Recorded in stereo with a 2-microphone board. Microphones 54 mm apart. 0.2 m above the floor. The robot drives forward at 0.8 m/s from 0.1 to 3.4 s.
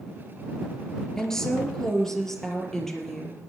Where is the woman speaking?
10° left (ahead or behind), 3 m; by 3.4 s 5° left (ahead or behind), 5 m.